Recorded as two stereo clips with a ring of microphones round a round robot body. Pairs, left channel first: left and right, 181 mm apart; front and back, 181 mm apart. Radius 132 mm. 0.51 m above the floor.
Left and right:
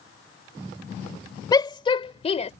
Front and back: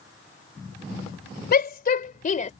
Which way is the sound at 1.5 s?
25° left.